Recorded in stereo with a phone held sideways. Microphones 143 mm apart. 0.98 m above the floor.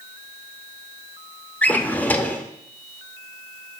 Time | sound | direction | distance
1.6 | a drawer | 10° left (ahead or behind) | 0.6 m